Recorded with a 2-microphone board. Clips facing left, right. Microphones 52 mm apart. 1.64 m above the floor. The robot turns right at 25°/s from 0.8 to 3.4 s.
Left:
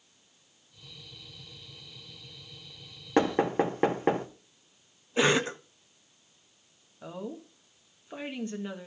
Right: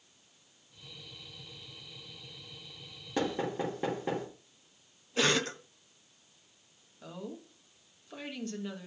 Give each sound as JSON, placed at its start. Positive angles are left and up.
{"t": 3.2, "sound": "knocking", "side_deg": 55, "distance_m": 1.7}
{"t": 5.2, "sound": "a cough", "side_deg": 20, "distance_m": 0.8}
{"t": 7.0, "sound": "a woman speaking", "side_deg": 25, "distance_m": 1.8}